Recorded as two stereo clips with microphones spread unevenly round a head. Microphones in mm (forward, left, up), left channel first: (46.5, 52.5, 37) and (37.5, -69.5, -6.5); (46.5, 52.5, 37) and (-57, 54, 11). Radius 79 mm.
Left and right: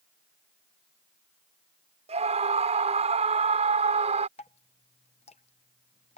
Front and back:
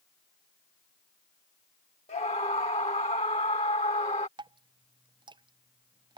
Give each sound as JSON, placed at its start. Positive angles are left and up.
{"t": 2.1, "sound": "a scream", "azimuth_deg": -55}
{"t": 4.4, "sound": "dripping", "azimuth_deg": 145}